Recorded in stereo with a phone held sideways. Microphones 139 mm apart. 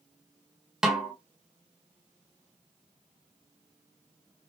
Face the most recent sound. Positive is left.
turn(degrees=-5)  # may be behind; listen again after turning